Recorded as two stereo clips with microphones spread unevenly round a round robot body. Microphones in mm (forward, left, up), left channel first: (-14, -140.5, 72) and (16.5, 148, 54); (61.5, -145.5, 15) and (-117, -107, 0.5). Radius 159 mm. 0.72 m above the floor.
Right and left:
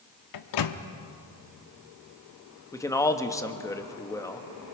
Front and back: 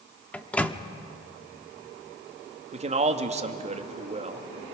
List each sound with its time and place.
0.3 s a microwave: 95° right, 1.1 m
2.7 s a man speaking: 175° right, 1.4 m